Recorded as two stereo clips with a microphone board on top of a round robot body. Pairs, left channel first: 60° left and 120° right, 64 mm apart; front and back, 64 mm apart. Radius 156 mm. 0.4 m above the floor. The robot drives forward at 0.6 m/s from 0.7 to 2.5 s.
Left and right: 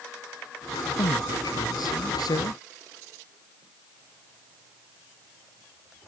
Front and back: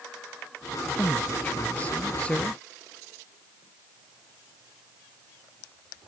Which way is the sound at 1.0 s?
70° left.